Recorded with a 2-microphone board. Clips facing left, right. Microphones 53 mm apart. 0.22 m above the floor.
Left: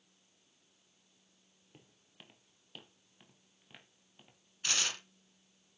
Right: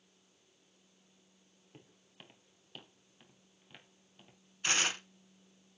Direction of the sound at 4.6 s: 25° right (ahead or behind).